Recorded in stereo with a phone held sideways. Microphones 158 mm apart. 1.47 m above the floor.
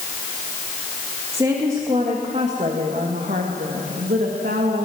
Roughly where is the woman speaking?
Right.